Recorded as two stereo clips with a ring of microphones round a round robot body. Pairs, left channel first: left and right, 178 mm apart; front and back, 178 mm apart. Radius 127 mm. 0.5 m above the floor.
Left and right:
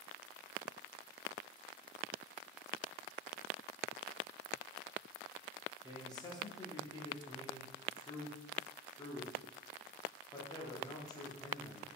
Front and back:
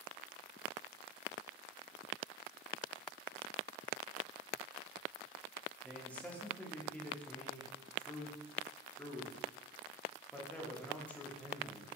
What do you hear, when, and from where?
5.8 s a man speaking: 70° left, 0.7 m